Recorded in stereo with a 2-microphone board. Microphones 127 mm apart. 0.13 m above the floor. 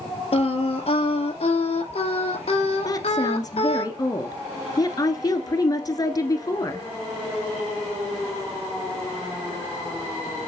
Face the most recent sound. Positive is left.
turn(degrees=30)  # may be behind; listen again after turning